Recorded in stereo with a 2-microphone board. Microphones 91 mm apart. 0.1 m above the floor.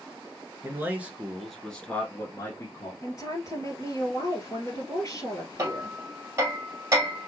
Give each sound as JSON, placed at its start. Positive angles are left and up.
{"t": 0.6, "sound": "a man speaking", "side_deg": -25, "distance_m": 1.3}
{"t": 3.0, "sound": "a woman speaking", "side_deg": 35, "distance_m": 2.0}
{"t": 5.6, "sound": "hammering", "side_deg": -30, "distance_m": 2.0}